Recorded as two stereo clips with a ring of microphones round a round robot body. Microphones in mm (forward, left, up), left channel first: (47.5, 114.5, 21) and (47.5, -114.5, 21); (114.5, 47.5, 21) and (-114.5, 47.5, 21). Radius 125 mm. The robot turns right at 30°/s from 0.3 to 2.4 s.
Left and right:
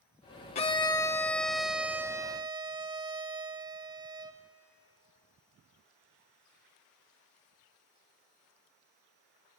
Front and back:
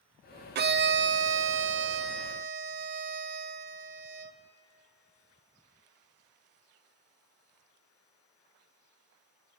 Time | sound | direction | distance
0.6 | a violin | 150° left | 0.5 m